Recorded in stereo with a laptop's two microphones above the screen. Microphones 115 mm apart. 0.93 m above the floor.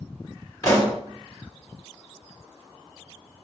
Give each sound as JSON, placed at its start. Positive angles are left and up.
{"t": 0.6, "sound": "a pop", "side_deg": 25, "distance_m": 1.6}